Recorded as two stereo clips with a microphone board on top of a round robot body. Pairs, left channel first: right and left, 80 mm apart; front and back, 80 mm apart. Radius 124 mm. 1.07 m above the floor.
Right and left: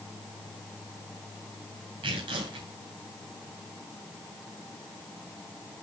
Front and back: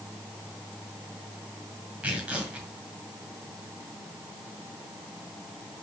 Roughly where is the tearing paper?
Left.